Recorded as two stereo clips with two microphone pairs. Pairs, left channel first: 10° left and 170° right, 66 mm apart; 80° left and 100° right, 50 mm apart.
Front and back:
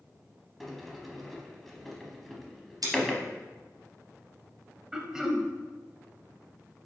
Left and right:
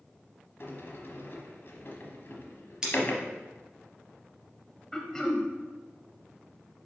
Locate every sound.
0.6 s a sliding door: 100° left, 0.9 m
2.8 s scissors: straight behind, 3 m
4.9 s throat clearing: 140° left, 0.8 m